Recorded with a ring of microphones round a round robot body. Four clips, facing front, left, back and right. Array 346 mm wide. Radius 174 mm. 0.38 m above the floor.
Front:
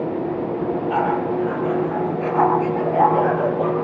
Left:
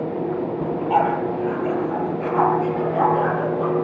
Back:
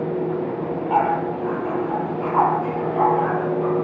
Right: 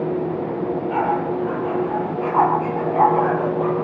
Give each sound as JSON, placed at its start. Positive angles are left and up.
{"t": 0.6, "sound": "a dog barking", "azimuth_deg": 65, "distance_m": 4.5}